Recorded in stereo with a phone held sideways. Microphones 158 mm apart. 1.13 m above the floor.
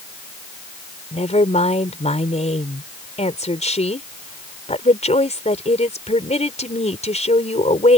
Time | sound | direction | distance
1.1 | a woman speaking | 45° left (ahead or behind) | ?